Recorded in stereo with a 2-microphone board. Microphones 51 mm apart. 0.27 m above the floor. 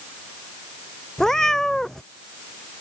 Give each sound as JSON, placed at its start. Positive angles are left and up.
{"t": 1.2, "sound": "a cat meowing", "side_deg": 10}